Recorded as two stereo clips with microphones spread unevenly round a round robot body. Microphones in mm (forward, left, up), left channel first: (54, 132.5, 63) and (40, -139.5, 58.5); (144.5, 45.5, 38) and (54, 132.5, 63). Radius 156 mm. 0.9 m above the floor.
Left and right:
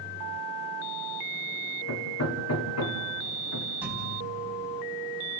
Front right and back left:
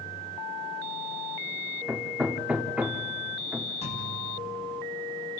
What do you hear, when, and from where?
1.9 s hammering: 55° left, 1.6 m
3.8 s a thud: 10° right, 3 m